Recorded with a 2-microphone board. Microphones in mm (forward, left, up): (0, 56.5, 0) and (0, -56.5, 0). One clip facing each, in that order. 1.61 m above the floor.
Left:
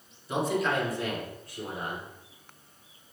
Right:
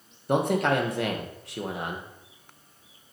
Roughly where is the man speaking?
Right.